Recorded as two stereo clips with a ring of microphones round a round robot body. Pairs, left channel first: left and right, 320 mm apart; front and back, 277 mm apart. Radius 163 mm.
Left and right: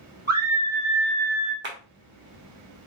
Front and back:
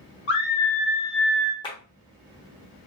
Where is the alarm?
No alarm in this recording.